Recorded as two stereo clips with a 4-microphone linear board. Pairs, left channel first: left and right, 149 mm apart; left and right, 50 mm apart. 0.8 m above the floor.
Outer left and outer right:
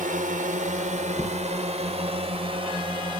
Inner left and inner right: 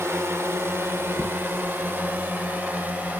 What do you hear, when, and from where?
0.0 s a drone: 60° right (ahead or behind); by 3.2 s 30° right (ahead or behind)
1.1 s knocking: 5° left (ahead or behind)